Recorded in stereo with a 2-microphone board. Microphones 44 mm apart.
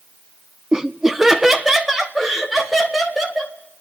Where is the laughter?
15° right (ahead or behind), 0.8 m; by 3.5 s centre (ahead or behind), 3.5 m.